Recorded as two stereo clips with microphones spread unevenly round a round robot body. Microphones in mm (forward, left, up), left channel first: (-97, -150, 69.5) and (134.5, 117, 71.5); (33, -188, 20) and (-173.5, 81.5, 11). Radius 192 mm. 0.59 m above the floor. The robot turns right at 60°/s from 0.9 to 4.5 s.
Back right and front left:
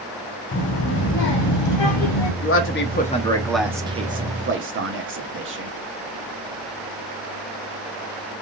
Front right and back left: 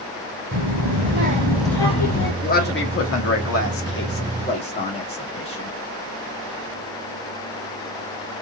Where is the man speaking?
110° right, 1.3 m; by 5.7 s 15° left, 1.3 m.